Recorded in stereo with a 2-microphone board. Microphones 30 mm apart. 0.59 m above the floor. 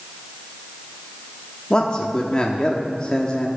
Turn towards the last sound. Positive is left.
turn(degrees=30)  # may be behind; listen again after turning